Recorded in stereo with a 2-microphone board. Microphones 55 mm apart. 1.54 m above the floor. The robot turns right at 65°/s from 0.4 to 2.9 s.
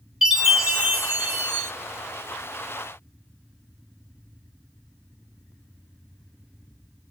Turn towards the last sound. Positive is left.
turn(degrees=0)